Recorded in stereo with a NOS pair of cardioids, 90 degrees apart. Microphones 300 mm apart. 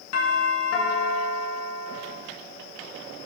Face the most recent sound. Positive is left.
turn(degrees=60)